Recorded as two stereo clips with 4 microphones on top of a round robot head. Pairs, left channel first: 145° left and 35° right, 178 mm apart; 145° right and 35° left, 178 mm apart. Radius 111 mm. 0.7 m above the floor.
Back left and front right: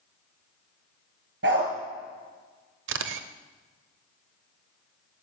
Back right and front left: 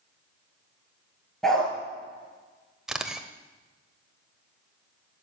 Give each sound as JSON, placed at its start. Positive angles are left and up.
{"t": 1.4, "sound": "a dog barking", "azimuth_deg": -60, "distance_m": 3.5}
{"t": 2.9, "sound": "a camera shutter", "azimuth_deg": -55, "distance_m": 0.8}